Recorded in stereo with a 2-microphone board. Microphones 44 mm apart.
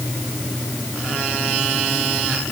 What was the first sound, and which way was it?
Only background noise.